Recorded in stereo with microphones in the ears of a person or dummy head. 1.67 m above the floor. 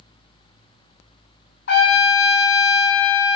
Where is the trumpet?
60° left (ahead or behind), 0.7 m.